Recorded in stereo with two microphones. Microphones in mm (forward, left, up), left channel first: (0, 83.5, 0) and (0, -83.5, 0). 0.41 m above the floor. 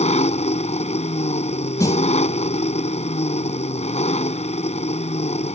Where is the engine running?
40° left (ahead or behind).